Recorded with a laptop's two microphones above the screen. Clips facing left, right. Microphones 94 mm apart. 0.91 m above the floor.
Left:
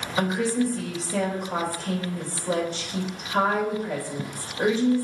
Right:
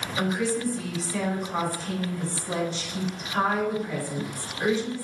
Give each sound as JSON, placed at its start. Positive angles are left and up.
{"t": 0.2, "sound": "a woman speaking", "side_deg": 65, "distance_m": 3.5}